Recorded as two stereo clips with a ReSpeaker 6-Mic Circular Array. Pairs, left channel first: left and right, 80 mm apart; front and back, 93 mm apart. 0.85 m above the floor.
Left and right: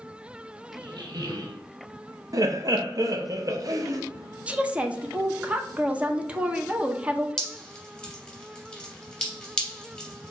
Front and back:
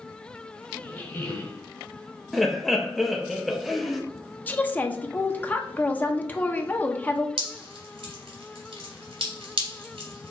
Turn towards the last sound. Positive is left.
turn(degrees=175)